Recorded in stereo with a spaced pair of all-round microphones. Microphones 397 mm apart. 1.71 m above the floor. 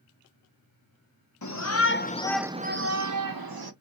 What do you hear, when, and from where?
1.4 s a shout: 50° left (ahead or behind), 0.9 m; by 3.7 s 70° right (ahead or behind), 1.0 m